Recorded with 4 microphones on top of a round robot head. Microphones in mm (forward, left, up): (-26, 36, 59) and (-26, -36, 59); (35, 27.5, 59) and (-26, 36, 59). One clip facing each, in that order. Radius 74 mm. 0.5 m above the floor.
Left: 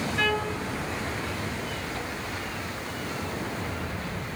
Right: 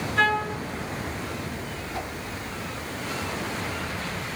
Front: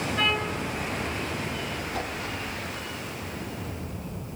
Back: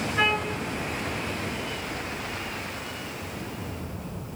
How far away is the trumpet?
About 3.5 m.